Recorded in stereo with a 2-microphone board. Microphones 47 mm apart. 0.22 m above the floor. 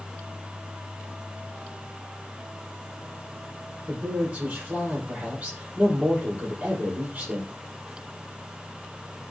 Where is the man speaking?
30° right (ahead or behind), 5.5 m.